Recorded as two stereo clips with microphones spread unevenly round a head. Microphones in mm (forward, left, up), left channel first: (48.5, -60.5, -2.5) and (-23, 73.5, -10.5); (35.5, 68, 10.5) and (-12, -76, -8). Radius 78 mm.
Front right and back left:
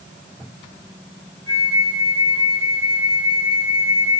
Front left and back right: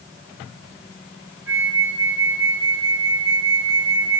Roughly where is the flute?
Behind.